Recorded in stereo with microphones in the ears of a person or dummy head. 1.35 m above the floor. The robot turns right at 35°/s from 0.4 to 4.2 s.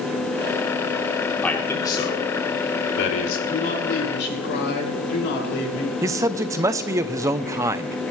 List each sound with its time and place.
1.4 s a man speaking: 10° left (ahead or behind), 3 m; by 3.4 s 75° left (ahead or behind), 3 m
3.5 s a man speaking: 35° left (ahead or behind), 5.5 m; by 6.0 s 60° left (ahead or behind), 5.5 m
6.0 s a man speaking: 15° right (ahead or behind), 0.6 m